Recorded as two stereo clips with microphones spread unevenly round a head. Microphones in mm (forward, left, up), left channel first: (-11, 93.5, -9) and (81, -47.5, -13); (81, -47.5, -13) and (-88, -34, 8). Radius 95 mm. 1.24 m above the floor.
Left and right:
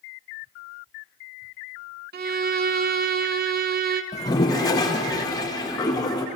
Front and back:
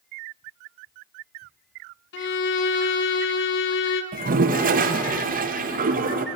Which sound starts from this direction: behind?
A toilet flushing, at 4.1 s.